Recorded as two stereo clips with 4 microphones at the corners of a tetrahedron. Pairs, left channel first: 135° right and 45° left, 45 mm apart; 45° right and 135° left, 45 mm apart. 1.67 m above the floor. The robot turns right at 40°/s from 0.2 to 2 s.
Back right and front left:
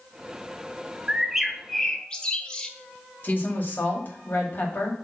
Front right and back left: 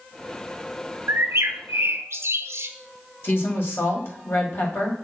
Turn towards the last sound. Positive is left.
turn(degrees=-85)